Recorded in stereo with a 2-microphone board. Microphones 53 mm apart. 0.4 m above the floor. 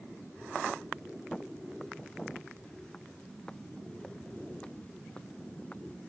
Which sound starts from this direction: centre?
Footsteps, at 1.3 s.